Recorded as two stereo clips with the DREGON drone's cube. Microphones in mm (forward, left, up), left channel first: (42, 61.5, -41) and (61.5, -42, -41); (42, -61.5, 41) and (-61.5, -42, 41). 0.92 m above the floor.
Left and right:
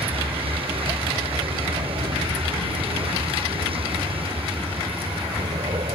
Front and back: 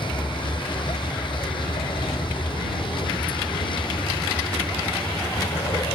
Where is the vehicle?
50° right.